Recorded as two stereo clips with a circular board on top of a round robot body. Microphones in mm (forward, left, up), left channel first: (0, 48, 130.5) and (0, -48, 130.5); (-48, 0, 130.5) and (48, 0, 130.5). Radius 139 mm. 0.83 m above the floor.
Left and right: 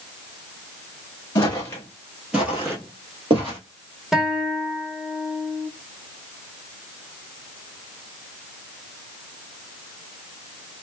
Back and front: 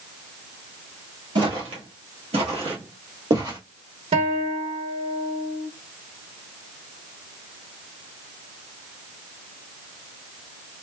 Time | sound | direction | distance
1.4 | footsteps | 40° left | 1.2 m
4.1 | a guitar | 5° right | 1.1 m